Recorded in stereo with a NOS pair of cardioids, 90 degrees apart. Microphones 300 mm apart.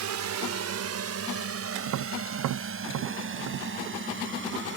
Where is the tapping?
65° right.